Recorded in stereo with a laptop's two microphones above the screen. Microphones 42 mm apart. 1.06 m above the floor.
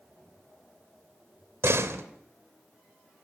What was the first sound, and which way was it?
A door slam, 85° right.